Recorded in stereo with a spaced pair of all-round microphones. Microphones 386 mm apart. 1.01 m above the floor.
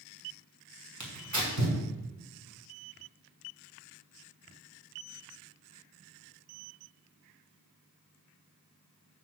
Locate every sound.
1.0 s tearing paper: 45° right (ahead or behind), 2.5 m